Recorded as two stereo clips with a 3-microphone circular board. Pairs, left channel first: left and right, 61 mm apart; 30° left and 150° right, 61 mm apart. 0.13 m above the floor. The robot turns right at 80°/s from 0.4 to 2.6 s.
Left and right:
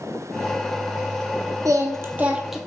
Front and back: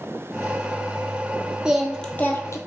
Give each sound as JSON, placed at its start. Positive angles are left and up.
{"t": 1.6, "sound": "singing", "azimuth_deg": -75, "distance_m": 0.7}